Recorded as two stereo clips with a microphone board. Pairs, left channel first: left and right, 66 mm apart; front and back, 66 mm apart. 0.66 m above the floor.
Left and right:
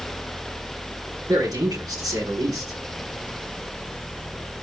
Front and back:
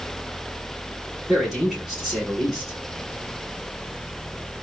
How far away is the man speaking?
About 6.5 m.